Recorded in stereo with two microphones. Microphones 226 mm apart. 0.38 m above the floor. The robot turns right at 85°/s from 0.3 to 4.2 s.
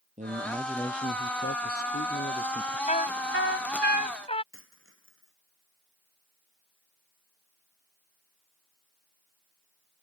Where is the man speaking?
35° right; by 2.8 s 175° left.